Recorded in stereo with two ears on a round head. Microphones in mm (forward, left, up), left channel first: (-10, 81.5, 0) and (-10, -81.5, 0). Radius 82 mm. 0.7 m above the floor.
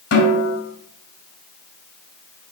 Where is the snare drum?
85° left, 2.5 m.